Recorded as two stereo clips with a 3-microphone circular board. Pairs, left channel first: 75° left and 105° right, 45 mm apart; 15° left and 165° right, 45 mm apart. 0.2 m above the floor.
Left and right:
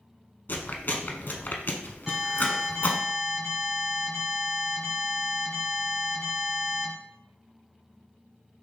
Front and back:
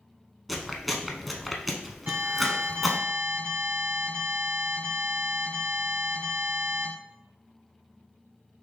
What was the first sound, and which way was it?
Chewing, 105° left.